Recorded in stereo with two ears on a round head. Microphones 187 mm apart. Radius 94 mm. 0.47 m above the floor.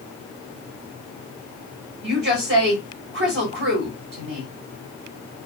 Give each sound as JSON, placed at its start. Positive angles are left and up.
{"t": 2.0, "sound": "a woman speaking", "side_deg": -50, "distance_m": 2.0}